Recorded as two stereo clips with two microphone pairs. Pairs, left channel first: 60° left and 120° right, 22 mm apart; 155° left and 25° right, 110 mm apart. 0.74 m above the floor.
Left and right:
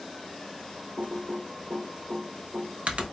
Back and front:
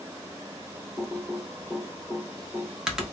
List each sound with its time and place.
1.0 s typing on a keyboard: 115° right, 0.9 m